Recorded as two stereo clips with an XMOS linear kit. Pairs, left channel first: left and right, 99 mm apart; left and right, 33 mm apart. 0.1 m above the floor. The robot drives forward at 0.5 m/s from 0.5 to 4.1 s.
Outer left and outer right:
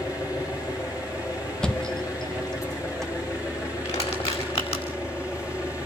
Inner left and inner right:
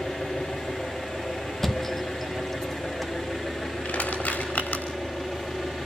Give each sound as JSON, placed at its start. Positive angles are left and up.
{"t": 0.0, "sound": "an engine running", "side_deg": 40, "distance_m": 9.0}
{"t": 1.6, "sound": "a thud", "side_deg": 10, "distance_m": 0.9}
{"t": 3.9, "sound": "crushing", "side_deg": 85, "distance_m": 5.0}